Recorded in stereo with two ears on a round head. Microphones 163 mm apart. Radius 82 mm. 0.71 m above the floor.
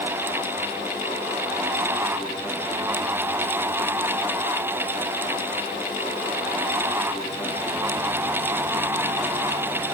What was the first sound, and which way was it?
Only background noise.